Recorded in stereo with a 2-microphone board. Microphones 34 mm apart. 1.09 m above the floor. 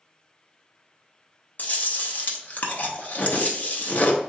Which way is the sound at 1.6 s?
55° left (ahead or behind).